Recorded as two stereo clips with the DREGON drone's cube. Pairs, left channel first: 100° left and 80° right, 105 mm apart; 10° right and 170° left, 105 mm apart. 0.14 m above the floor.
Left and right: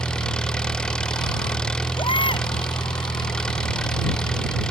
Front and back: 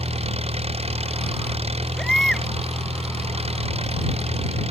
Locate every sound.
0.0 s an engine running: straight behind
2.0 s a baby crying: 75° left